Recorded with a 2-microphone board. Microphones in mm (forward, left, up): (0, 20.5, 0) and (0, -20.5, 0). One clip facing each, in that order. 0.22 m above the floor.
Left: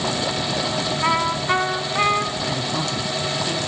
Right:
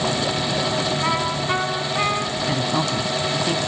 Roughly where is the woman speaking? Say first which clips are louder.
Right 3 dB; right.